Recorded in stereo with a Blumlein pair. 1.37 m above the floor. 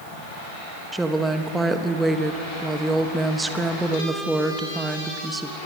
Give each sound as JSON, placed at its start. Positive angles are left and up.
{"t": 0.9, "sound": "a woman speaking", "azimuth_deg": -5, "distance_m": 1.4}